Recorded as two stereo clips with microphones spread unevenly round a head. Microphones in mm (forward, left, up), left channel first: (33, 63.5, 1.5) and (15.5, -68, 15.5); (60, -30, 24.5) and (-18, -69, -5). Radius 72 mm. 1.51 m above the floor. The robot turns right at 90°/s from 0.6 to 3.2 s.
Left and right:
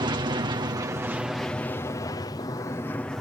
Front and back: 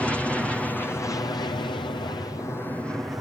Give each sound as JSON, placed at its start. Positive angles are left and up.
{"t": 0.0, "sound": "an aircraft", "azimuth_deg": -70}